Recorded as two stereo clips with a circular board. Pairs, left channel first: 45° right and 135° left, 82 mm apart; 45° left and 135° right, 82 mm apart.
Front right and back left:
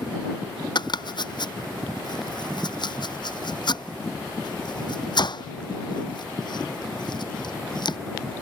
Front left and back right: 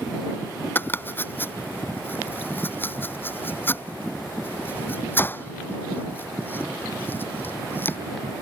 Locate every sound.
0.8 s chopping: 20° right